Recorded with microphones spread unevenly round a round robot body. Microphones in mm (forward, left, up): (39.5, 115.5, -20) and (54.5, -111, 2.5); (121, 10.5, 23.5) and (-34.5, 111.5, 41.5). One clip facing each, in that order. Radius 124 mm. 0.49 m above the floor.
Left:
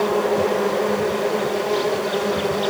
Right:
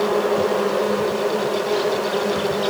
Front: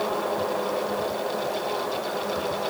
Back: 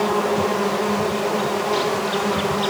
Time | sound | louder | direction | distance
0.0 | an insect | even, back 6 dB | 170° right | ?